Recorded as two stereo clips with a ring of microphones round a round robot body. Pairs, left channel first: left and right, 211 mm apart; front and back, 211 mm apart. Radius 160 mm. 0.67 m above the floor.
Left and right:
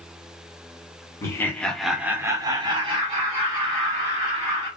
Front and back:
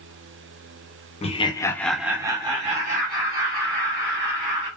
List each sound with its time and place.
1.2 s laughter: 25° left, 0.7 m; by 4.7 s 150° right, 1.5 m